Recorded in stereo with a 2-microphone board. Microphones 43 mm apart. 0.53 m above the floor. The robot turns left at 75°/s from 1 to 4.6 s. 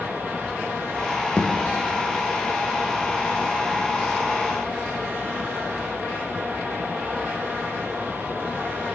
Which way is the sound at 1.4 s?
25° left (ahead or behind).